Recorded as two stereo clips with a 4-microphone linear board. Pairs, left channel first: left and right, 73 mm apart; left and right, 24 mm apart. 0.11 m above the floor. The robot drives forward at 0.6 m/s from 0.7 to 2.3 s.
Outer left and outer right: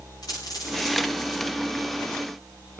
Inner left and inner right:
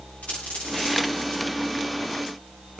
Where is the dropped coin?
75° left (ahead or behind), 8 m.